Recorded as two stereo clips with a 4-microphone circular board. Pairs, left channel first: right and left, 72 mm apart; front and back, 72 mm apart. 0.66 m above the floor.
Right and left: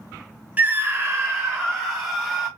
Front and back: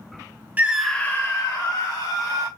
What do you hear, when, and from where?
0.6 s a scream: 135° left, 0.6 m; by 2.5 s 25° left, 1.9 m